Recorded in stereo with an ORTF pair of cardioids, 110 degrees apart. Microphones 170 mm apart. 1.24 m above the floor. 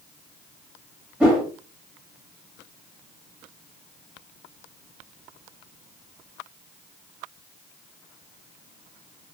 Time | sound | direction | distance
1.2 | a whoosh | 5° right | 1.3 m